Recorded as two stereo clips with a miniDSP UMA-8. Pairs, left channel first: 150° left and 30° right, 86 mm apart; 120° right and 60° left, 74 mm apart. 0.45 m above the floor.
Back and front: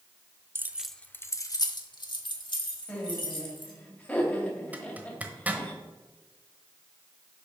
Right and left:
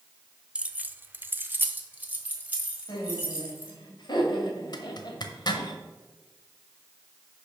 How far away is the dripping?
I don't hear dripping.